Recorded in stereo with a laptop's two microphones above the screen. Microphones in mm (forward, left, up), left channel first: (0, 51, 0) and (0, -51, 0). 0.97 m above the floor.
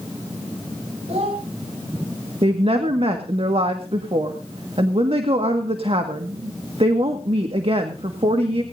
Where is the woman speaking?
70° right (ahead or behind), 1.5 m.